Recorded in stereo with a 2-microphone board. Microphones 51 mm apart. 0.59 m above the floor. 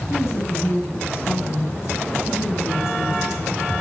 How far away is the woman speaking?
About 6.5 m.